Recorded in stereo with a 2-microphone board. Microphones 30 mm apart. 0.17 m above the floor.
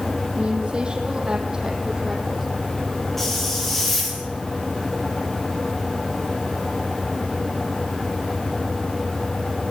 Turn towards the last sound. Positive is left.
turn(degrees=5)  # may be behind; listen again after turning